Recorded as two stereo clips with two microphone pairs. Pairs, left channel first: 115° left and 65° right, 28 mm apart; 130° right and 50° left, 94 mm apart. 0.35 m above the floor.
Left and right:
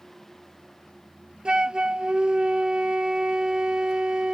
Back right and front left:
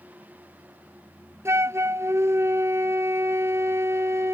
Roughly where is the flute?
Ahead.